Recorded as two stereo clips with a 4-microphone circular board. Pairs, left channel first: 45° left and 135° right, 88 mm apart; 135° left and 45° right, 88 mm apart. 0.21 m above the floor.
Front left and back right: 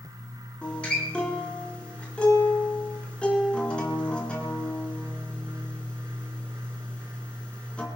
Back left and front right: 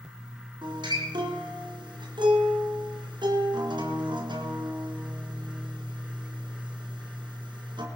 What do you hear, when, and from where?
0.6 s a guitar: 30° right, 3 m